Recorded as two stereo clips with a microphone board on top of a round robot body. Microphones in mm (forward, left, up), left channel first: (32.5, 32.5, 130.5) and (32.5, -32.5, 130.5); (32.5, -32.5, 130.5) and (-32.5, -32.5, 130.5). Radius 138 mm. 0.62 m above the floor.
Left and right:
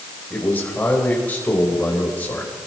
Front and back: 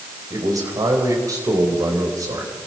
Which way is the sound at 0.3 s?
155° left.